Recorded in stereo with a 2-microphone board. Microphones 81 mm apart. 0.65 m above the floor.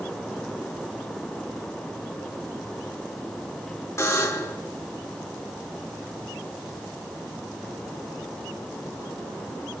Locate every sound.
4.0 s a buzzer: 35° left (ahead or behind), 1.8 m